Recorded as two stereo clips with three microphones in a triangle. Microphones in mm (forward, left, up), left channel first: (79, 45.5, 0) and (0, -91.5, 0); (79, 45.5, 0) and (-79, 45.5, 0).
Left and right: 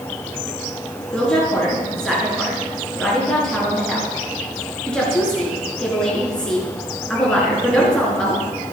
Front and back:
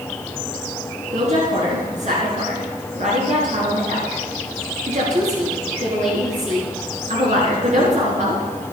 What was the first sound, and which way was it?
A woman speaking, 145° left.